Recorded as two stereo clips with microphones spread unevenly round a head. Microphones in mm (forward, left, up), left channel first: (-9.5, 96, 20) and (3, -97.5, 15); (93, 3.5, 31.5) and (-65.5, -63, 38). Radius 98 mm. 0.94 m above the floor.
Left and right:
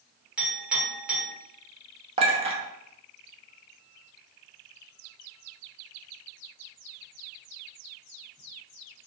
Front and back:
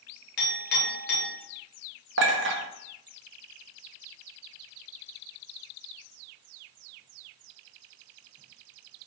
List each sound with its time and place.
0.4 s a clink: straight ahead, 1.7 m
2.2 s a clink: 145° right, 0.8 m